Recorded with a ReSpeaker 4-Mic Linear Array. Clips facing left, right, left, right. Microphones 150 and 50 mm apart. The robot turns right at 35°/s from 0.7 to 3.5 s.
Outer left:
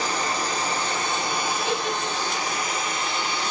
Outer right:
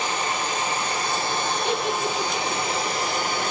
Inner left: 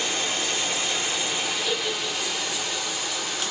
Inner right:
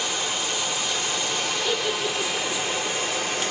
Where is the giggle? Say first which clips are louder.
Outer right 2 dB, inner right 2 dB; 20° right (ahead or behind), 0.5 m; by 2.6 s 55° right (ahead or behind), 0.5 m.